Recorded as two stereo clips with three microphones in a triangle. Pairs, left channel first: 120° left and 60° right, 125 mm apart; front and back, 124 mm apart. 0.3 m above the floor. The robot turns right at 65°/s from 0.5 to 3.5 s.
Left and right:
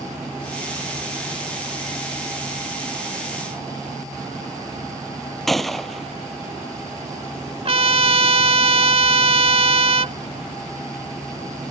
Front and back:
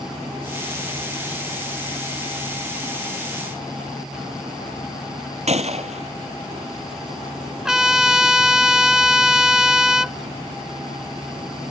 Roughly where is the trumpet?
Right.